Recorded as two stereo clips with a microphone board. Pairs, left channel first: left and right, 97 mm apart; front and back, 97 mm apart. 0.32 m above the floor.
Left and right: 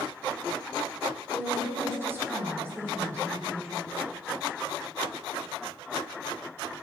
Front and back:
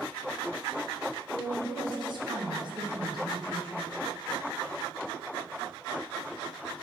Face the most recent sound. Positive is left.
turn(degrees=-155)